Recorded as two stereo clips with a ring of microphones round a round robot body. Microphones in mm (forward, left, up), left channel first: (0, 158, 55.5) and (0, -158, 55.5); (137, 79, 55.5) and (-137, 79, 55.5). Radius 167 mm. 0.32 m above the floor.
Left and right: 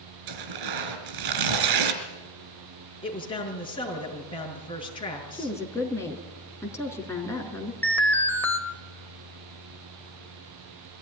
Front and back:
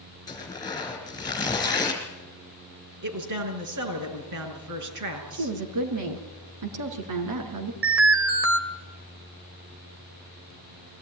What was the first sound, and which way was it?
Tearing paper, 80° right.